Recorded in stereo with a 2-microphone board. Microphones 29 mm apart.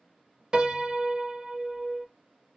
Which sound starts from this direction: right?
A piano, at 0.5 s.